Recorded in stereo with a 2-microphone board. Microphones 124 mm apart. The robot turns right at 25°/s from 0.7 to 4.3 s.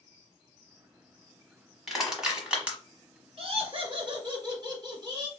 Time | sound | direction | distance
1.9 | crushing | centre (ahead or behind) | 1.0 m
3.4 | laughter | 50° right (ahead or behind) | 1.7 m